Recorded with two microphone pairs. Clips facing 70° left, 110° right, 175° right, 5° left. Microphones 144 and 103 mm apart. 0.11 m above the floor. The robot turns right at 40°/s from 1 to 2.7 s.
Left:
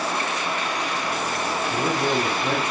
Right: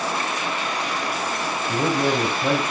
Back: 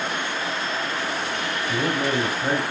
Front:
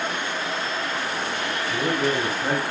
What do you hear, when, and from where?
1.7 s a man speaking: 115° right, 4 m; by 2.7 s 75° right, 4 m